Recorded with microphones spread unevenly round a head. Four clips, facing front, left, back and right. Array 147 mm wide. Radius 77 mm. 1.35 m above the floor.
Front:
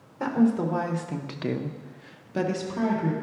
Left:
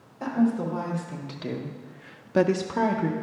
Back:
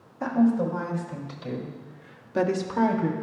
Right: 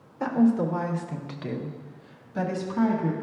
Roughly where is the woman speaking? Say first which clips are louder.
Right 2 dB, back 1 dB; ahead.